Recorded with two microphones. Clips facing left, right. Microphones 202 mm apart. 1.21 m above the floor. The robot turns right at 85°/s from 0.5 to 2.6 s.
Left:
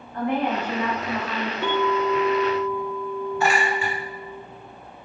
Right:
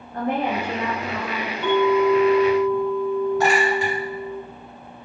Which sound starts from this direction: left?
A clink, at 1.6 s.